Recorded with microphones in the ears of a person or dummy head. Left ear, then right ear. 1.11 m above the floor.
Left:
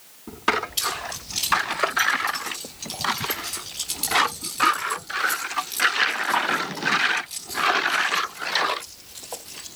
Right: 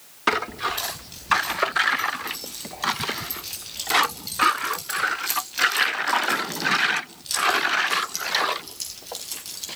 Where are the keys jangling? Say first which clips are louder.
Left 5 dB; 30° left (ahead or behind), 6 m; by 9.7 s 55° right (ahead or behind), 6 m.